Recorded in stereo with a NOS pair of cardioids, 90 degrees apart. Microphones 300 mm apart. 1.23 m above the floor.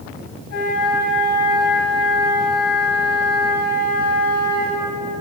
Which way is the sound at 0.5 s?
65° left.